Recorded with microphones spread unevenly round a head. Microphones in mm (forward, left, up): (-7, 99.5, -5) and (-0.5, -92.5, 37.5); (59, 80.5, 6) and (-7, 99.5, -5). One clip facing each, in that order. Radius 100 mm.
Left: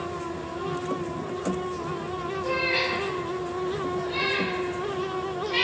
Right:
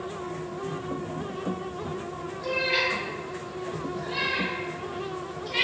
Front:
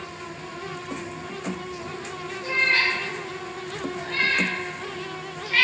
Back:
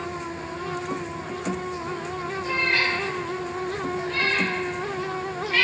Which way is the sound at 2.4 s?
115° right.